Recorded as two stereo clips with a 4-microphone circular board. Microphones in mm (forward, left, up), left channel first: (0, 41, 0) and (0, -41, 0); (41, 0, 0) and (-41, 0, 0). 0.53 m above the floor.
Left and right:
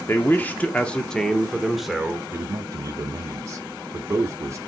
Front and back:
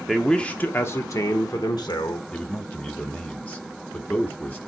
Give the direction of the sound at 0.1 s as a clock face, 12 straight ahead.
9 o'clock.